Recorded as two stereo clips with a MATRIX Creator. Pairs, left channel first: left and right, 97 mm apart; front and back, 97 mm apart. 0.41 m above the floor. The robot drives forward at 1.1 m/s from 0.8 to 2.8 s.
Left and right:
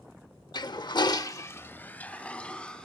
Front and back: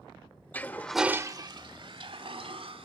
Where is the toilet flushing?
70° left, 0.6 m; by 2.9 s 170° left, 2 m.